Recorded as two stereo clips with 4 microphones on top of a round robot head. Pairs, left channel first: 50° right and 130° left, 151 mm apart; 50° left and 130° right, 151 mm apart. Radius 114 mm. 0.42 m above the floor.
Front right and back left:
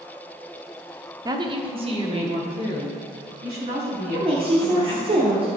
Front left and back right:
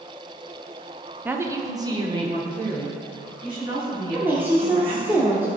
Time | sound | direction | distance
1.2 | a woman speaking | 165° left | 0.8 m
4.1 | a woman speaking | 160° left | 1.1 m